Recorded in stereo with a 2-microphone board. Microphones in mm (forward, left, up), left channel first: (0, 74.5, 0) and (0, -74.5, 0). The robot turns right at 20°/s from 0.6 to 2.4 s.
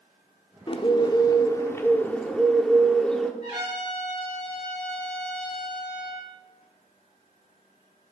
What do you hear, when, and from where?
0.7 s a bird: 140° left, 0.9 m; by 3.3 s 175° left, 0.9 m
3.4 s a trumpet: 30° right (ahead or behind), 5 m